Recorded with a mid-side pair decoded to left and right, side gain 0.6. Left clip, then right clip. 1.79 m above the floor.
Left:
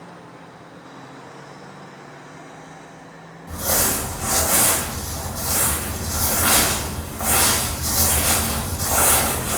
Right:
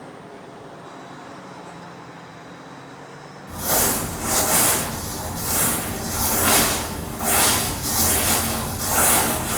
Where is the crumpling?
25° left, 1.2 m.